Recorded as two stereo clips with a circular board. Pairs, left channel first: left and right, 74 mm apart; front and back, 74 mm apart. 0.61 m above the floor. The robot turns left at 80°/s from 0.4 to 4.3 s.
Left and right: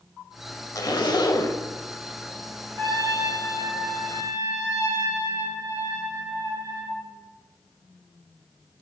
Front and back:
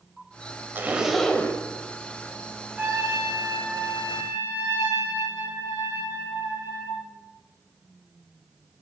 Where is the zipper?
120° left, 0.8 m; by 1.6 s 50° left, 0.8 m.